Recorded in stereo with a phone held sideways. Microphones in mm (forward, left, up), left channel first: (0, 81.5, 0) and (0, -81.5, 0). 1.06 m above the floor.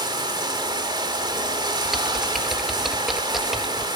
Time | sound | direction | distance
0.0 | running water | 25° right (ahead or behind) | 3.5 m
1.9 | typing on a keyboard | centre (ahead or behind) | 1.6 m